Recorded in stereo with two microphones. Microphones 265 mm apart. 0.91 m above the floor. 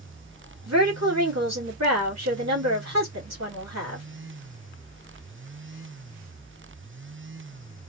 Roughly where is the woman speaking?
Right.